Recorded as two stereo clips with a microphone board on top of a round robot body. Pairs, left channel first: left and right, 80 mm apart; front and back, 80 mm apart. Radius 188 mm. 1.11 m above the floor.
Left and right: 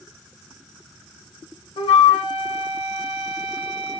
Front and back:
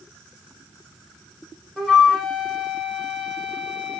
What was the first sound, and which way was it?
A flute, 85° left.